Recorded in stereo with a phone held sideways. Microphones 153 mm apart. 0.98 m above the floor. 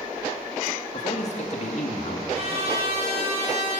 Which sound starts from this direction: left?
A man speaking, at 0.9 s.